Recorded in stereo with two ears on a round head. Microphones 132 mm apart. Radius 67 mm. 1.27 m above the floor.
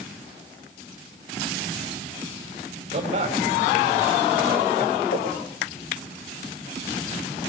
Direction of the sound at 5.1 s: 75° left (ahead or behind).